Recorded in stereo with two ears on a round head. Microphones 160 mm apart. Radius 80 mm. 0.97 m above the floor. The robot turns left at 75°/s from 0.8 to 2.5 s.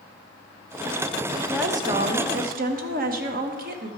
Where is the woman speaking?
5° right, 1.2 m; by 3.9 s 80° right, 1.2 m.